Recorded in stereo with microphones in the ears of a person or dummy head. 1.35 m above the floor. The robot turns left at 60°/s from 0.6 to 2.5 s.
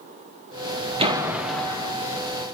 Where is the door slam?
155° right, 1.2 m; by 1.9 s 150° left, 1.2 m.